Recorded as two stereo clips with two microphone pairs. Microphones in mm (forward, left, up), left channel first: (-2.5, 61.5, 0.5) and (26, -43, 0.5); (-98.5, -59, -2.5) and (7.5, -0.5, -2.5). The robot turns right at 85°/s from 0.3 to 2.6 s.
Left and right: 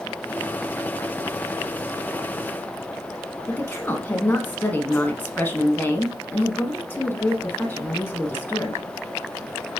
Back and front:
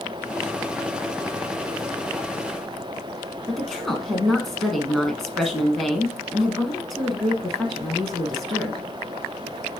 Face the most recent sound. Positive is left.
turn(degrees=130)